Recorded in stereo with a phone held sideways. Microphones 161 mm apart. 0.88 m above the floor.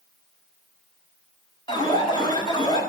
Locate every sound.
1.7 s an alarm: 30° left (ahead or behind), 4.5 m